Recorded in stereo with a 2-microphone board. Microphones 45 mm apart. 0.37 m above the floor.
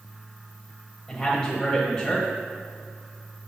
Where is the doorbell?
I don't hear a doorbell.